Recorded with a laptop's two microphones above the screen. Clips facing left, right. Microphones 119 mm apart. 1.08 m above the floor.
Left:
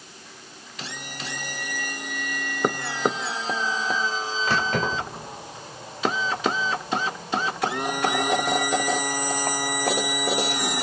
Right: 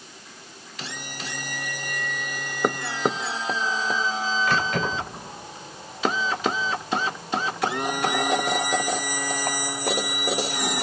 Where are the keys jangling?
35° left (ahead or behind), 3 m; by 10.6 s 65° left (ahead or behind), 5.5 m.